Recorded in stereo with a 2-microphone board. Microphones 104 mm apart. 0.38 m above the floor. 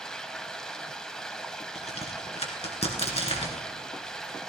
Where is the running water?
5° left (ahead or behind), 1.2 m.